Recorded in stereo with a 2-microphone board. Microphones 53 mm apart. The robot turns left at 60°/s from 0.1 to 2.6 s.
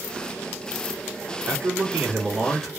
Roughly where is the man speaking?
Behind right.